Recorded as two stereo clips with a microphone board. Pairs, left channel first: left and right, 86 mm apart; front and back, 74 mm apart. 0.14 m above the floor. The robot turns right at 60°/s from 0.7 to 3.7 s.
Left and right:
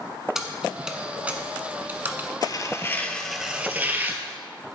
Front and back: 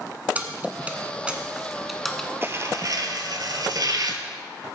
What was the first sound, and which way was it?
Keys jangling, 170° right.